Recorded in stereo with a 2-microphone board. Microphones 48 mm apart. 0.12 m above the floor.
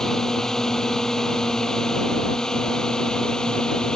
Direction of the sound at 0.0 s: 10° left (ahead or behind).